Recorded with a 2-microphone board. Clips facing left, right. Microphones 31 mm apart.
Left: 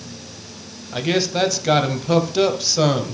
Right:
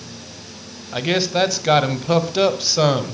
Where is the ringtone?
I don't hear a ringtone.